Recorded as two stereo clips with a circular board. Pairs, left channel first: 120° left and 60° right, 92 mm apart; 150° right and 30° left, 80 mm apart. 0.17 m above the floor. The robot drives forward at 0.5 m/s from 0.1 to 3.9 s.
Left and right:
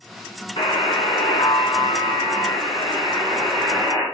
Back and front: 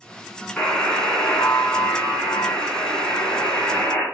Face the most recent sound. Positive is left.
turn(degrees=145)